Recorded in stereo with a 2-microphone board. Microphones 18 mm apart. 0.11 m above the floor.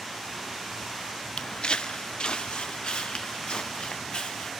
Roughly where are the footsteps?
Left.